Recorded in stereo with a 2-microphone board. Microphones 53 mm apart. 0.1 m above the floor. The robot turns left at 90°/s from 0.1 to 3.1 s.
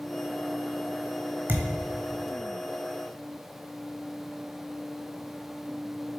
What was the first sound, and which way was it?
A thud, 35° right (ahead or behind).